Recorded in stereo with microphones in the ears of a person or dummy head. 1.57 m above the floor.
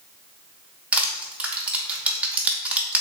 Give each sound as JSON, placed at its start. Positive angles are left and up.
{"t": 0.9, "sound": "crushing", "side_deg": -10, "distance_m": 0.5}